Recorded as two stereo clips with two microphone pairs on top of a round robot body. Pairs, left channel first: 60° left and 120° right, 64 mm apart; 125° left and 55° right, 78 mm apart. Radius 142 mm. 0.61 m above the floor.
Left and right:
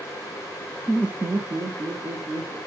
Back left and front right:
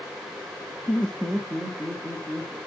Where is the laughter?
145° left, 0.6 m; by 2.6 s 140° right, 2.5 m.